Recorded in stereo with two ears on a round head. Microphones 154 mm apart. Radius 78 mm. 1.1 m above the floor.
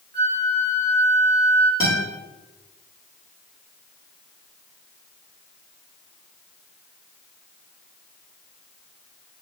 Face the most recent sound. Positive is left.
turn(degrees=15)  # may be behind; listen again after turning